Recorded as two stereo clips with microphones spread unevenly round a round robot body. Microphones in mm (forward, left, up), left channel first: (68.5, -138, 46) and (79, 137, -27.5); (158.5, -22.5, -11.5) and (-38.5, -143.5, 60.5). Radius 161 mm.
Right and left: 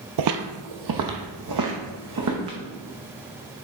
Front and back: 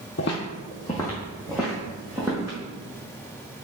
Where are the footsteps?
90° left, 0.6 m; by 2.6 s 135° left, 1.6 m.